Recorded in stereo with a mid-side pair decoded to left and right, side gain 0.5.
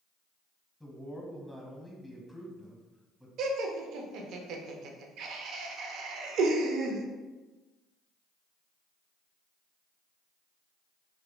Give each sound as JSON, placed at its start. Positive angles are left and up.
{"t": 0.8, "sound": "a man speaking", "azimuth_deg": 5, "distance_m": 0.9}
{"t": 3.4, "sound": "laughter", "azimuth_deg": -70, "distance_m": 0.5}